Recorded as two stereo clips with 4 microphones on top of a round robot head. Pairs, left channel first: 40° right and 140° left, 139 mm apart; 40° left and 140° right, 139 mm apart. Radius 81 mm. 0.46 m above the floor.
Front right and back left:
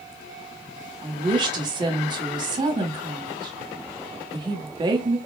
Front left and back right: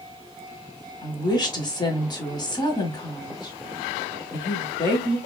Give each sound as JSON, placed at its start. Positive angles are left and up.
{"t": 1.0, "sound": "a woman speaking", "azimuth_deg": 90, "distance_m": 1.1}